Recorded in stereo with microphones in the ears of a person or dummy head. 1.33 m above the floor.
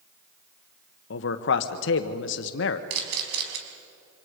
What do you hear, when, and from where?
1.1 s a man speaking: 60° left (ahead or behind), 1.3 m
2.9 s a camera shutter: 60° right (ahead or behind), 4.5 m